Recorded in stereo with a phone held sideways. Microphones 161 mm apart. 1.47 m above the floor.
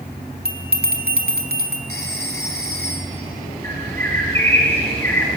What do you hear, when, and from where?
0.5 s a bell: 75° right (ahead or behind), 2.5 m
1.9 s a phone ringing: 80° right, 2.5 m
3.6 s a bird: 15° left (ahead or behind), 3.5 m